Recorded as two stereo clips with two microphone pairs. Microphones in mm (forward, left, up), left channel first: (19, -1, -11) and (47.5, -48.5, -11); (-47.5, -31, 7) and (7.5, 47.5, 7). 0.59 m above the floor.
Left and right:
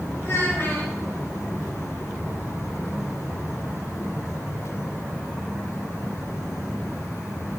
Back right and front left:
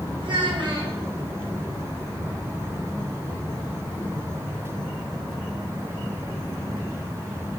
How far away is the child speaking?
About 2.5 m.